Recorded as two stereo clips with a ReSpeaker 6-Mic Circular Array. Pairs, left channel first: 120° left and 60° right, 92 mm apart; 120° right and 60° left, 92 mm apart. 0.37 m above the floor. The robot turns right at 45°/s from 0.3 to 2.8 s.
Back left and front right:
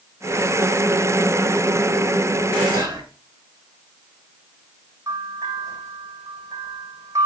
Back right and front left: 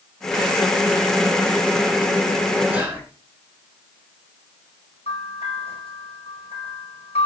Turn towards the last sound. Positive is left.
turn(degrees=-115)